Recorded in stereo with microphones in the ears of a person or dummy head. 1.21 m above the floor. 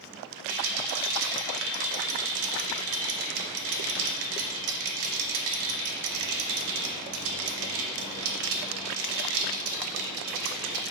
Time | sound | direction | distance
0.5 | a rattle | 70° right (ahead or behind) | 0.6 m